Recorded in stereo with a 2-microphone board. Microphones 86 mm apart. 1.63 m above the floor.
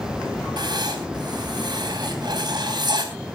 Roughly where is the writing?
Right.